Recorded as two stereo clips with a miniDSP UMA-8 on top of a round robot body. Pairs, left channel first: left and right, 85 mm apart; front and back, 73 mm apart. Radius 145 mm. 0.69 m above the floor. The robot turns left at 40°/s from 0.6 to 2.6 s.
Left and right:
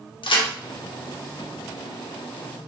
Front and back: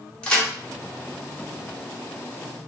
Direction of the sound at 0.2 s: 75° left.